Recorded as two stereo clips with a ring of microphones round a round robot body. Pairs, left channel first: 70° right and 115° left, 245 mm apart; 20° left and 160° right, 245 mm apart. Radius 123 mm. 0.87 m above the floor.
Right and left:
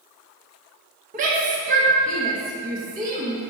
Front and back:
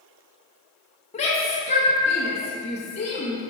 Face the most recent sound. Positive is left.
turn(degrees=75)